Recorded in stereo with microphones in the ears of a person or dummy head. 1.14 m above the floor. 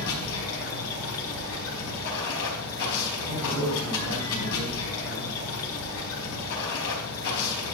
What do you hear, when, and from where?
0.0 s running water: 80° left, 4 m
3.3 s a man speaking: 70° right (ahead or behind), 5.5 m